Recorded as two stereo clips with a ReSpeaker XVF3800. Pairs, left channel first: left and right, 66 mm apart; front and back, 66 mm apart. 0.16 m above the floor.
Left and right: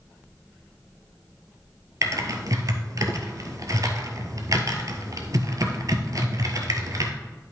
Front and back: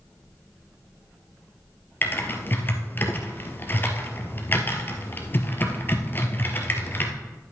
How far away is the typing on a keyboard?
About 1.3 m.